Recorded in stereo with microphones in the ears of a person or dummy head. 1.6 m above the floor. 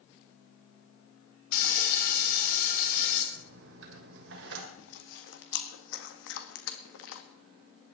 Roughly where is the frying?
Left.